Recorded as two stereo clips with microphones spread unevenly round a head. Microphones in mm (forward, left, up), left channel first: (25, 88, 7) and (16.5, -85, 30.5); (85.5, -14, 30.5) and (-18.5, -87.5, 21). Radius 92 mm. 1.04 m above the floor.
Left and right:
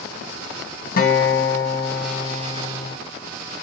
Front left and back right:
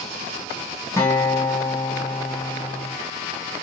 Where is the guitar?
110° left, 0.8 m.